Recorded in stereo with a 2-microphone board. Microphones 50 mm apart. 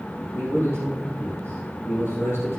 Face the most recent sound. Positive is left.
turn(degrees=60)  # may be behind; listen again after turning